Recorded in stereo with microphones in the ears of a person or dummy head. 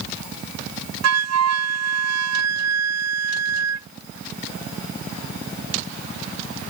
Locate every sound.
1.0 s a flute: 75° right (ahead or behind)